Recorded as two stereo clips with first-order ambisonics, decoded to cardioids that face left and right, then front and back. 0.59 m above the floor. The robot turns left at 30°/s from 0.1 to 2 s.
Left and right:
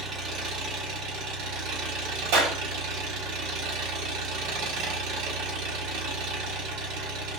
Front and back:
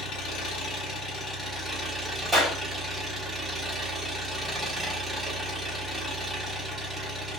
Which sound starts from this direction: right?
A clap, at 2.3 s.